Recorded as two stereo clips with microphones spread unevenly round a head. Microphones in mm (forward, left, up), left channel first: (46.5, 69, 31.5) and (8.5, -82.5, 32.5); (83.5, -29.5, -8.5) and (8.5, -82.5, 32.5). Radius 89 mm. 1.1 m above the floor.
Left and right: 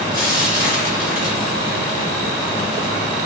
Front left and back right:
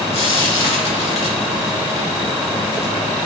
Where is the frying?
15° left, 2.5 m.